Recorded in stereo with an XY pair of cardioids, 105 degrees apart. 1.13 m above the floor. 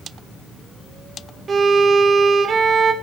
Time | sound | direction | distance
1.5 | a violin | 40° right | 1.7 m